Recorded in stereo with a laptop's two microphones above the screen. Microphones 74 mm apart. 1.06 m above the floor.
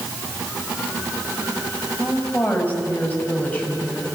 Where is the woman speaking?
20° left (ahead or behind), 7 m.